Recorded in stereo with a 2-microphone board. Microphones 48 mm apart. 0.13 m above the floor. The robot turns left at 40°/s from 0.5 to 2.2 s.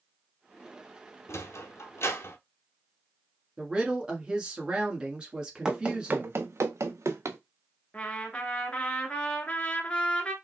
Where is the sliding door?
75° left (ahead or behind), 0.6 m; by 2.4 s 55° left (ahead or behind), 0.6 m.